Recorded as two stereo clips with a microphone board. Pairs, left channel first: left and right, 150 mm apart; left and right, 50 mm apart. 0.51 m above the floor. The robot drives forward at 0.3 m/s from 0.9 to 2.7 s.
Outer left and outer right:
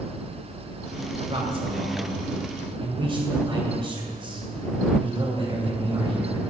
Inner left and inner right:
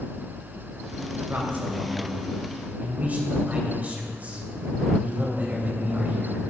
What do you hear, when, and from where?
1.3 s a man speaking: 40° right (ahead or behind), 2.5 m; by 6.4 s 35° right (ahead or behind), 2.5 m